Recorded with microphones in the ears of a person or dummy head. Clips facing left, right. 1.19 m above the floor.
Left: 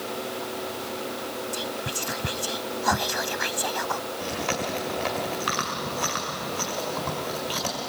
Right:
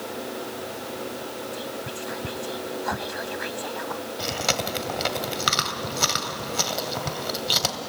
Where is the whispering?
50° left (ahead or behind), 0.5 m.